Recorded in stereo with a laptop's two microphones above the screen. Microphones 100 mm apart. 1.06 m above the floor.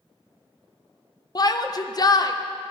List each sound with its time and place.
1.4 s a shout: 40° left (ahead or behind), 0.5 m